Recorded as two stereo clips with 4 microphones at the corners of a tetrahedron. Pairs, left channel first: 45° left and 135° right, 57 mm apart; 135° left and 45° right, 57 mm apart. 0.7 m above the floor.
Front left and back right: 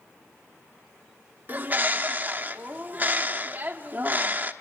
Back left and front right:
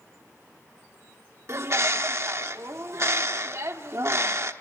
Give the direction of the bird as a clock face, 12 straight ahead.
3 o'clock.